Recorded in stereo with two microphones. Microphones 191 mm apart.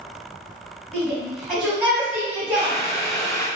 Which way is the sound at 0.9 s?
5° left (ahead or behind).